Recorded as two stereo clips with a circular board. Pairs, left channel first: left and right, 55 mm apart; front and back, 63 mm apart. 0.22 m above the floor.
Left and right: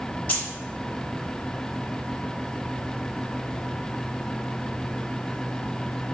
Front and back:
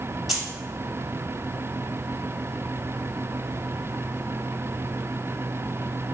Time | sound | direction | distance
0.3 | keys jangling | 100° left | 0.9 m